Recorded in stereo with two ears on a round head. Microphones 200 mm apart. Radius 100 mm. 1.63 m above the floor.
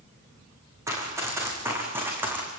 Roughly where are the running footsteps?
Centre.